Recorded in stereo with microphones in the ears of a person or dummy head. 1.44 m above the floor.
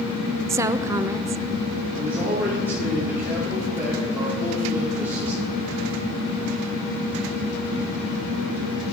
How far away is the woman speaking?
About 0.5 m.